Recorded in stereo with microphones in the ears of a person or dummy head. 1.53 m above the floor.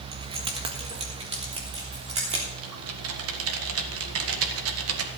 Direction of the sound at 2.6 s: 75° right (ahead or behind).